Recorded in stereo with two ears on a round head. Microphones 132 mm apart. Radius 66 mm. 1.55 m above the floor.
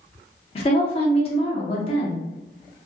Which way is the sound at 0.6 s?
40° left (ahead or behind).